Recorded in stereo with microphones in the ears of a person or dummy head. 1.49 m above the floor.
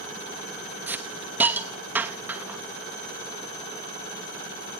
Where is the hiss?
5° right (ahead or behind), 1.1 m.